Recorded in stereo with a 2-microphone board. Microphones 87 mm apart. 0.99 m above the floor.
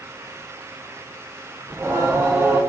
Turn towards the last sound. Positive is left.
turn(degrees=-30)  # may be behind; listen again after turning